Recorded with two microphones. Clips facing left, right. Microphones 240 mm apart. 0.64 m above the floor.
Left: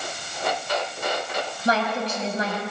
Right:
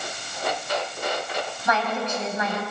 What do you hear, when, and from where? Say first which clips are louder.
1.6 s a woman speaking: left 2 dB; 35° left (ahead or behind), 4.5 m